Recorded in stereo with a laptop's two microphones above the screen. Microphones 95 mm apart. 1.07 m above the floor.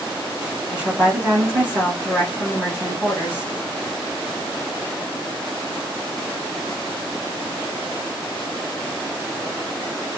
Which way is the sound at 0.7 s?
15° right (ahead or behind).